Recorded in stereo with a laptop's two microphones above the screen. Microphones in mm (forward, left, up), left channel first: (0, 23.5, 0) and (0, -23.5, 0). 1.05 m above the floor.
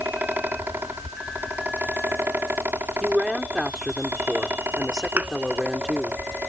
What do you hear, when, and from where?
0.0 s a fan: 50° right (ahead or behind)
3.0 s a woman speaking: 10° right (ahead or behind)
5.2 s a thud: 40° right (ahead or behind)